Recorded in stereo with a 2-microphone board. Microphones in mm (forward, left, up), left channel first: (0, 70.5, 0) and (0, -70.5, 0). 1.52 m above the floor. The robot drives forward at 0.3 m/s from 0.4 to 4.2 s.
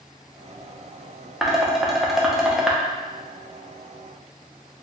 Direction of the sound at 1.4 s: Centre (ahead or behind).